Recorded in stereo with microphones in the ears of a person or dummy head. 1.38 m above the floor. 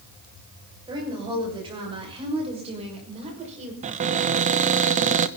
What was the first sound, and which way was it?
A woman speaking, 25° right (ahead or behind).